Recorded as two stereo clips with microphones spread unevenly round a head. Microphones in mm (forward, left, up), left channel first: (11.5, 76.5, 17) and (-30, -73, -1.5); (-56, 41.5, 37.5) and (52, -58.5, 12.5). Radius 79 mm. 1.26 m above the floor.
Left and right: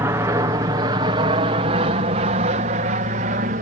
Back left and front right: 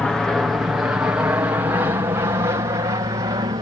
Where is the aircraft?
125° right; by 3.6 s 95° right.